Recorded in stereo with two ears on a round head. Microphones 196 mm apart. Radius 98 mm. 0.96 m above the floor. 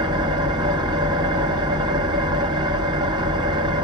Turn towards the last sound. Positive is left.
turn(degrees=-20)  # may be behind; listen again after turning